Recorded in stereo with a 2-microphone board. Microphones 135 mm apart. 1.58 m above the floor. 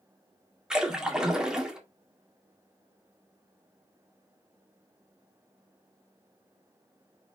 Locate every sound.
0.7 s a splash: 5° right (ahead or behind), 1.5 m